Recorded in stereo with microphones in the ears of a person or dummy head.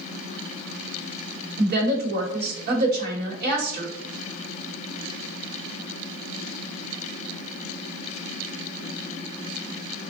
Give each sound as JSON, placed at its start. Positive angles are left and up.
{"t": 1.6, "sound": "a woman speaking", "side_deg": -50, "distance_m": 1.1}